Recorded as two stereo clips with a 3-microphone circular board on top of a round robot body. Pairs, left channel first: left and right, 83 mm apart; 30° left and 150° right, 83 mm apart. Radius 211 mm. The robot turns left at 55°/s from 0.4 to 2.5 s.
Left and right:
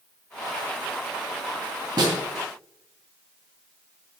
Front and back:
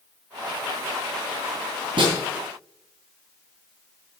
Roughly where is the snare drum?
Behind right.